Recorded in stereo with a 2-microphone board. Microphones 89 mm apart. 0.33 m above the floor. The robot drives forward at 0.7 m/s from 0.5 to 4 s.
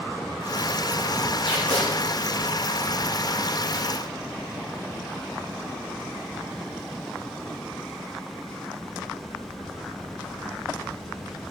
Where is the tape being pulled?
70° left (ahead or behind), 5.5 m; by 1.9 s 75° left (ahead or behind), 5.5 m.